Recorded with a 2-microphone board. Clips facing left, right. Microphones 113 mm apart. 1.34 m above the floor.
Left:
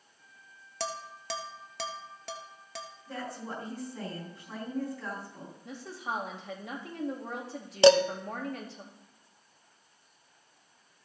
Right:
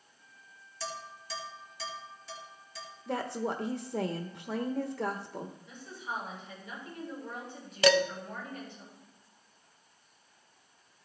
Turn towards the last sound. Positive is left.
turn(degrees=30)  # may be behind; listen again after turning